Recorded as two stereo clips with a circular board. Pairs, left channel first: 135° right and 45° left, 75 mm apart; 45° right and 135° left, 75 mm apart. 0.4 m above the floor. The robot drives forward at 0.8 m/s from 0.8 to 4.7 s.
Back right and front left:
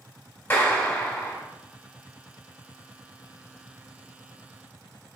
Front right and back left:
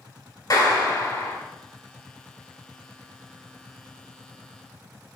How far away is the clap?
About 2.5 m.